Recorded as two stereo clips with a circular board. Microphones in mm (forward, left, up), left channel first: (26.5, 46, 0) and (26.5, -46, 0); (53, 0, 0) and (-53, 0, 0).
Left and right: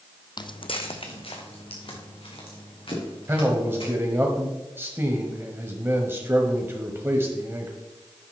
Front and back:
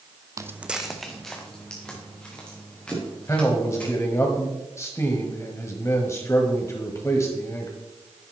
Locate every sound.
0.4 s footsteps: 120° left, 0.6 m; by 3.9 s 75° left, 6 m
3.3 s a man speaking: 45° right, 1.3 m